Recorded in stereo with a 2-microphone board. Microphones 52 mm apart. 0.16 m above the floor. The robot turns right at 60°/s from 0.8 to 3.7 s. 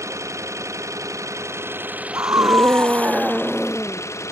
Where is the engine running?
105° right; by 4.3 s 70° left.